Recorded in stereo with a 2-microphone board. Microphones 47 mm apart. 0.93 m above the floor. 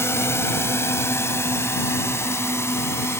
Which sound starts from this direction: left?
A drone, at 0.0 s.